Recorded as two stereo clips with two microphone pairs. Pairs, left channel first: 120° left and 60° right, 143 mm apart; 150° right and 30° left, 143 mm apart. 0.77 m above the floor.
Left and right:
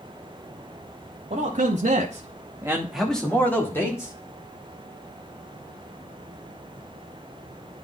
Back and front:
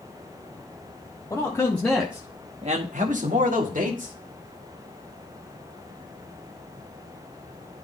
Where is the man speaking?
85° right, 1.5 m; by 4.1 s 50° left, 2 m.